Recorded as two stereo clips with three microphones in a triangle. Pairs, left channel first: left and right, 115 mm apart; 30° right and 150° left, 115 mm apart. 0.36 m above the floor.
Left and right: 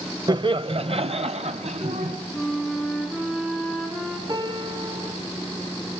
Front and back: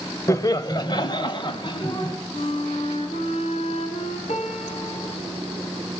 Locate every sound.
0.3 s laughter: 75° right, 1.0 m
2.3 s a flute: 5° right, 4 m
4.3 s a piano: 40° right, 3.5 m